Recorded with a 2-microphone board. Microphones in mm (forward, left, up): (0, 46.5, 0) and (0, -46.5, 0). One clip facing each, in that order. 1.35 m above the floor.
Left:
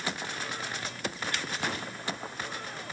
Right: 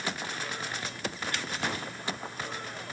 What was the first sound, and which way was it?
Only background noise.